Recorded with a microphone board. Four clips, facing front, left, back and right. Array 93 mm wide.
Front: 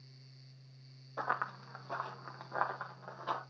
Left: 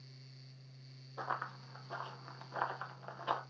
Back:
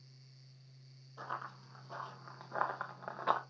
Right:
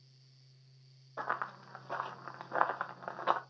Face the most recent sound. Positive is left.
turn(degrees=-125)